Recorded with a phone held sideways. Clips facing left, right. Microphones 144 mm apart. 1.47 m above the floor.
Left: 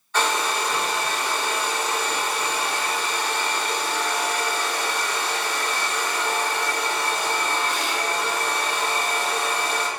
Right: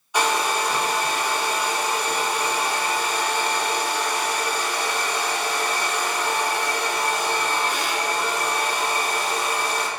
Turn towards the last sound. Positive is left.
turn(degrees=-15)  # may be behind; listen again after turning